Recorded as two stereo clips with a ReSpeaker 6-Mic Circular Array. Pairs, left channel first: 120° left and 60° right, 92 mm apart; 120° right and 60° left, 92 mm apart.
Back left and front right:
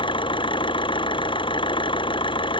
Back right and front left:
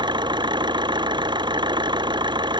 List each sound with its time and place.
0.0 s an engine running: 95° left